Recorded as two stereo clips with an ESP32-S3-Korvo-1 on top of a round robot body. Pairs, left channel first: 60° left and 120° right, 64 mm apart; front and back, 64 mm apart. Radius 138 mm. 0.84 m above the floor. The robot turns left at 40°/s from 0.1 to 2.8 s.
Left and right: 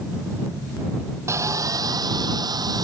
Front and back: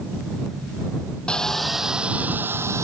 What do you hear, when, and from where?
1.3 s sawing: 75° right; by 2.9 s 135° right